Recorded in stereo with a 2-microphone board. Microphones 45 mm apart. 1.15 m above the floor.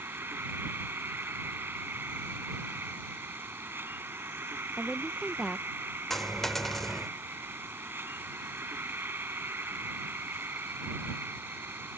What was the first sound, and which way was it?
An insect, 60° right (ahead or behind).